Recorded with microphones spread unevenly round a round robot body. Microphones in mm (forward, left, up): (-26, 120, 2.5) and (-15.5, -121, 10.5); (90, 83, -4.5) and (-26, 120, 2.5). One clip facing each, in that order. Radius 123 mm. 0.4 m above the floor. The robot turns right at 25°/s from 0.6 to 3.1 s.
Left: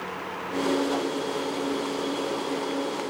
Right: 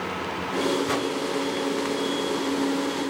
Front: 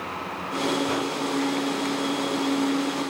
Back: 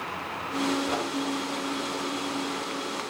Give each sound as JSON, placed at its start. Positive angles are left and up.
{"t": 0.9, "sound": "a whoosh", "azimuth_deg": -85, "distance_m": 8.5}